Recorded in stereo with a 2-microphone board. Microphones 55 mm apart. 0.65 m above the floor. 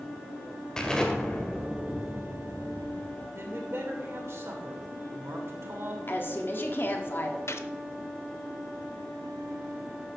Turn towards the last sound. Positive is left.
turn(degrees=60)  # may be behind; listen again after turning